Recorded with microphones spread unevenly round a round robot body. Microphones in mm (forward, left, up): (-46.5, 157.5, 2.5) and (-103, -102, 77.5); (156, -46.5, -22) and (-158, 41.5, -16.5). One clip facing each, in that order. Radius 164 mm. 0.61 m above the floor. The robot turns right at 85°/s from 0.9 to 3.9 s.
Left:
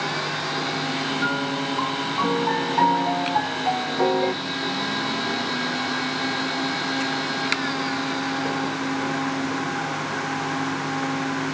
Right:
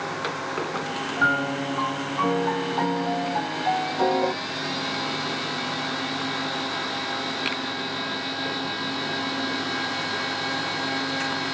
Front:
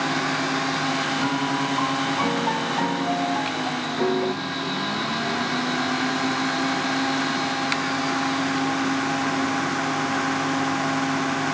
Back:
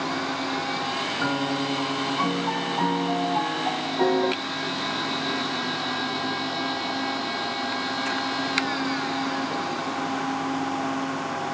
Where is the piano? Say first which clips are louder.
Left 1 dB, back 1 dB; 115° right, 1.9 m; by 4.3 s 120° left, 1.9 m.